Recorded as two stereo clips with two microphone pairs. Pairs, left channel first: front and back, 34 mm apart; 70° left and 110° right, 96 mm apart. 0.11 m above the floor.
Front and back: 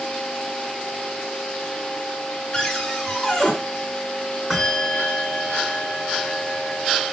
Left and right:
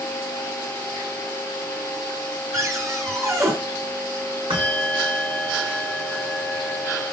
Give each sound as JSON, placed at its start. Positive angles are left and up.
{"t": 2.5, "sound": "a cupboard door", "azimuth_deg": -75, "distance_m": 2.0}
{"t": 4.5, "sound": "a bell", "azimuth_deg": -100, "distance_m": 5.5}